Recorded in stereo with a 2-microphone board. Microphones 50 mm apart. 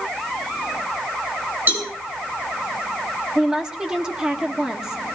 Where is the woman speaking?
15° right (ahead or behind), 1.6 m.